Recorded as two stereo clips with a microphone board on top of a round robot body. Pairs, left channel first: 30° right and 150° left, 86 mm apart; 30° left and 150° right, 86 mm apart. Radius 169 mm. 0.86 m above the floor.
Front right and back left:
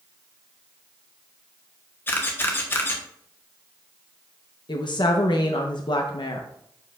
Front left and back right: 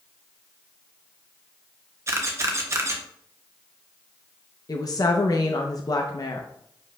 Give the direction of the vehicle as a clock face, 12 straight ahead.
No vehicle in this recording.